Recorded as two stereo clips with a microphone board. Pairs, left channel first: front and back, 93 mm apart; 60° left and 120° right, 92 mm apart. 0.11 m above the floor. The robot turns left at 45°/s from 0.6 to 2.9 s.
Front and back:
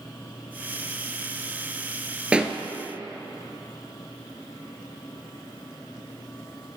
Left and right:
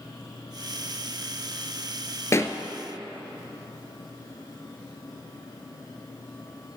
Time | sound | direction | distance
2.3 | a pop | 105° left | 0.6 m